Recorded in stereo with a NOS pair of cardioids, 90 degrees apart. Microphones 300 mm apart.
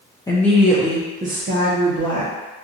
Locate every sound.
0.3 s a woman speaking: 10° left, 0.8 m; by 2.3 s 50° right, 1.2 m